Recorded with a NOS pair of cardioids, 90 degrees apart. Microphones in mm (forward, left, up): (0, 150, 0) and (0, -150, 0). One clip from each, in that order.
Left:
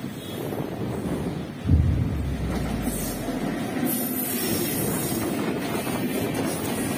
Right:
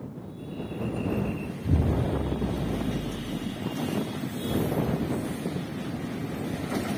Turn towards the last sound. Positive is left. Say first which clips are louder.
# right 1 dB
turn(degrees=20)